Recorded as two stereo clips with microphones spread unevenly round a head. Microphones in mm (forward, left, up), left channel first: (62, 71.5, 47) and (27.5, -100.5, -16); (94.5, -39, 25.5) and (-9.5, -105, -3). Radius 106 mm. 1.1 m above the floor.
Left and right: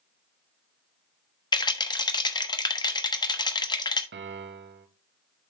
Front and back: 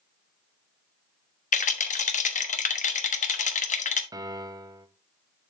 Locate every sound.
1.5 s a rattle: 15° left, 1.2 m
4.1 s a piano: 90° right, 1.0 m